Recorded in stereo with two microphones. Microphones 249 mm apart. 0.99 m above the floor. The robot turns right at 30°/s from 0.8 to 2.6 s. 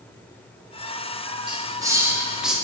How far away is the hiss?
About 0.7 m.